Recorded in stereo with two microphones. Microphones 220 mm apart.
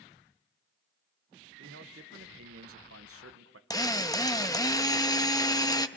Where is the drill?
15° left (ahead or behind), 0.8 m.